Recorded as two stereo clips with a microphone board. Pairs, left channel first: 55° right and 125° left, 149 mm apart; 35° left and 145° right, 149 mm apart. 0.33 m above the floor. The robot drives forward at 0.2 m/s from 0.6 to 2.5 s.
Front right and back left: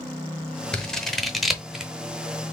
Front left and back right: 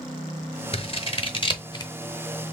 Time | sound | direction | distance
0.7 | scissors | 25° left | 0.8 m